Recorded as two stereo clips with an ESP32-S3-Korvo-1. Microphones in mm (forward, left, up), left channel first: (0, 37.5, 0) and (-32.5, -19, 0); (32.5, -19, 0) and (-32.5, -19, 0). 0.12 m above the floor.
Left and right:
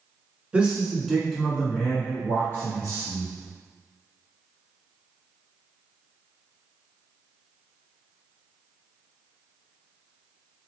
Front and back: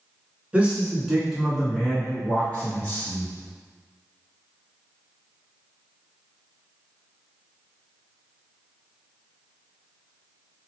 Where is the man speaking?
155° right, 1.1 m; by 3.3 s 45° left, 1.6 m.